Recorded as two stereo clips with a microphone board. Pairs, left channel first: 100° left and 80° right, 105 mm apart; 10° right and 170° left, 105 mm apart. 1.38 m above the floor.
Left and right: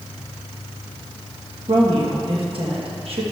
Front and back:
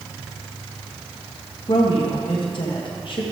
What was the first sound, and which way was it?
A woman speaking, 50° right.